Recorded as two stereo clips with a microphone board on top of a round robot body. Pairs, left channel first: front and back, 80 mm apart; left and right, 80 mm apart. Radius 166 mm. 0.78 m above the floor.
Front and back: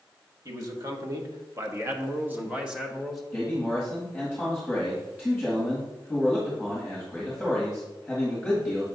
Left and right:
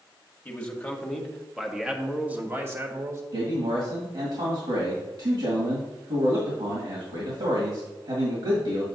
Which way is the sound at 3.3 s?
90° right.